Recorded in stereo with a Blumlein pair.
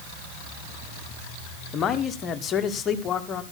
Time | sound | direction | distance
1.7 | a man speaking | 25° left | 1.6 m